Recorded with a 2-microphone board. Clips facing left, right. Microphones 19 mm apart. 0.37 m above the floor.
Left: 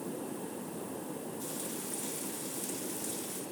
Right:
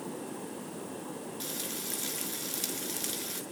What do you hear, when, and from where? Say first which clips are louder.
1.4 s frying: right 2 dB; 60° right (ahead or behind), 4 m